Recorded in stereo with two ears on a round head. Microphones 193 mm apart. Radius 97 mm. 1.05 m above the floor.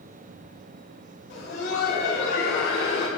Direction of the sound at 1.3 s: 60° left (ahead or behind).